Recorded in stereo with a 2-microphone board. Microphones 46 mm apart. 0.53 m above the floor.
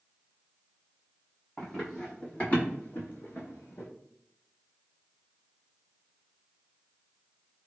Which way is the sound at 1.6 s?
10° left (ahead or behind).